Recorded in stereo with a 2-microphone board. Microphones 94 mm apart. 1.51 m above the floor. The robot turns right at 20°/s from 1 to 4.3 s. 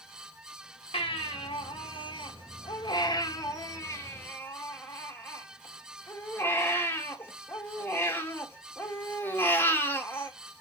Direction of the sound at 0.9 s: 90° left.